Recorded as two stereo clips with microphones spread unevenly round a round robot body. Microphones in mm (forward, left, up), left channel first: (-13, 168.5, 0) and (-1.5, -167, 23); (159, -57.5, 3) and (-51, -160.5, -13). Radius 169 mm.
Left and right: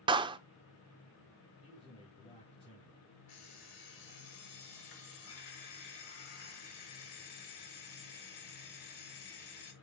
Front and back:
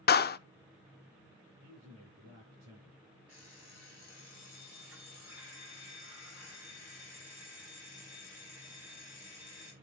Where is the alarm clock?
120° left, 5 m.